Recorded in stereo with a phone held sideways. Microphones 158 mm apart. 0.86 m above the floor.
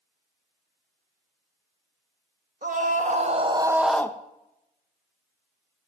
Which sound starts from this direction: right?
A scream, at 2.6 s.